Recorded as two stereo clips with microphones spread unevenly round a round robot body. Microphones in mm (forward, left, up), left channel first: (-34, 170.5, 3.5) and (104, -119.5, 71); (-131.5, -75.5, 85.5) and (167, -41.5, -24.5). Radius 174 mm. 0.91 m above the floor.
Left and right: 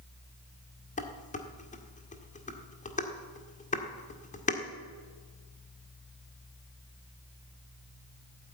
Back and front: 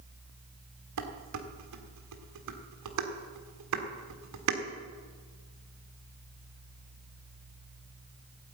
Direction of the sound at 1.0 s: 45° left.